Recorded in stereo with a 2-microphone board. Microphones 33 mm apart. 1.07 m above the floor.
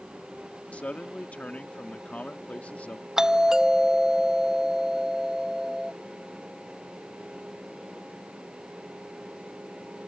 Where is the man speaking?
50° left (ahead or behind).